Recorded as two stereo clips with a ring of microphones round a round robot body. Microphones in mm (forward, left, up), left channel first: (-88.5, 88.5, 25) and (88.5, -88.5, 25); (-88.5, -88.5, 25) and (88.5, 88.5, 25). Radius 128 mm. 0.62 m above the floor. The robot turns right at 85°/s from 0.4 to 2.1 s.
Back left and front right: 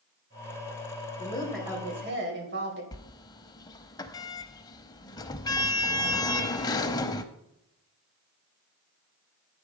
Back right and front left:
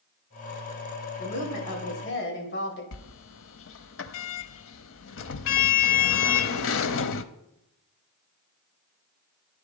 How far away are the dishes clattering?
No dishes clattering in this recording.